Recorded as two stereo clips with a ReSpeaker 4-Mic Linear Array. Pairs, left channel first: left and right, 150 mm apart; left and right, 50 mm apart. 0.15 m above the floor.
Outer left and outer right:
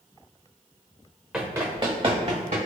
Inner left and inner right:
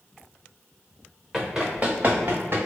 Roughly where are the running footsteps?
Centre.